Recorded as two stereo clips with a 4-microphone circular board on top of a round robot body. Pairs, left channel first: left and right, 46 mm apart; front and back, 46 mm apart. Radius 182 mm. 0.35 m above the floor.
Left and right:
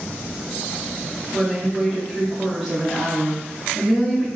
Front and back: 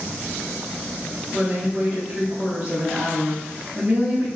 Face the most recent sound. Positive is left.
turn(degrees=-175)